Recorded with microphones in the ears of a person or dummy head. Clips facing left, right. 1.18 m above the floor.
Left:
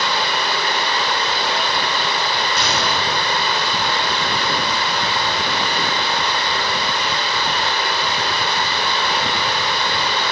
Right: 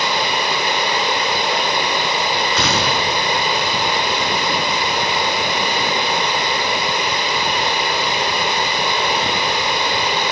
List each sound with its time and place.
0.0 s running water: 15° right (ahead or behind), 1.7 m
2.6 s a gunshot: 65° right (ahead or behind), 4 m